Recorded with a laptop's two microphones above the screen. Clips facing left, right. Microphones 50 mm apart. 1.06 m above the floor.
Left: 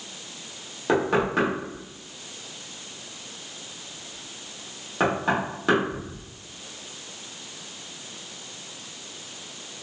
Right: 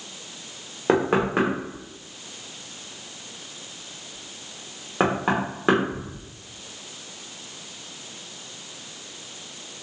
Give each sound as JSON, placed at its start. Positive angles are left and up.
{"t": 0.9, "sound": "knocking", "side_deg": -25, "distance_m": 0.7}